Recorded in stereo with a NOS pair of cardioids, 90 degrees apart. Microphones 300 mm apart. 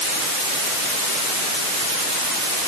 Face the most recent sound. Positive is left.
No sound to turn to.